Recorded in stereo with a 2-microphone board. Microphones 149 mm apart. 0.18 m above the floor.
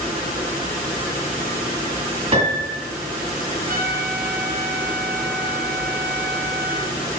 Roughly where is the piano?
Right.